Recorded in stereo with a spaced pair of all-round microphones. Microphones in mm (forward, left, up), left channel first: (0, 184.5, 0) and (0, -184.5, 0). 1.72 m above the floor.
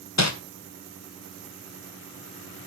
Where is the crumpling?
45° left (ahead or behind), 1.9 m.